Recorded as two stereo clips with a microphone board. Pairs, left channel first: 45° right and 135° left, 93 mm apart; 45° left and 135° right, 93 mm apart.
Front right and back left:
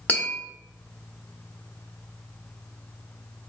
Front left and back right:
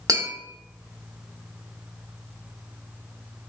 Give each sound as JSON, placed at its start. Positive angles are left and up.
{"t": 0.1, "sound": "tapping", "azimuth_deg": -110, "distance_m": 1.0}